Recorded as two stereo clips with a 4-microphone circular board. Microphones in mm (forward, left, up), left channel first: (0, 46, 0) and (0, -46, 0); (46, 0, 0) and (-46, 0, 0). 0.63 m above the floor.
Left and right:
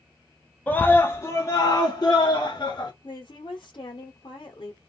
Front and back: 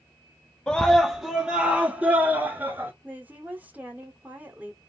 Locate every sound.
0.7 s a scream: 65° left, 0.9 m; by 2.9 s 115° left, 1.6 m
3.0 s a woman speaking: 110° left, 1.3 m